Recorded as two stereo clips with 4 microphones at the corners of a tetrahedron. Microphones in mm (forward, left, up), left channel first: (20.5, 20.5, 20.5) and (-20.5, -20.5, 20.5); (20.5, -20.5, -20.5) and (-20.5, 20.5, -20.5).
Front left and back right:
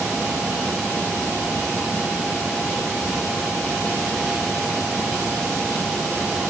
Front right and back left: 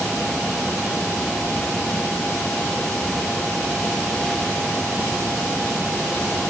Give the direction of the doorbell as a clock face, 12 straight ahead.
I don't hear a doorbell.